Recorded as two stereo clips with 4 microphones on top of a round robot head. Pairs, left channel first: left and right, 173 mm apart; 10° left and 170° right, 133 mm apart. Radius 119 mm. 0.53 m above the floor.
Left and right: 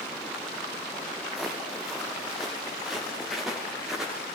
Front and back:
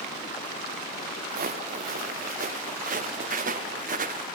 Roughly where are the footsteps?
Behind.